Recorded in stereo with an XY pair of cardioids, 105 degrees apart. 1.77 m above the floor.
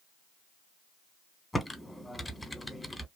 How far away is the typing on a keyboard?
About 0.9 m.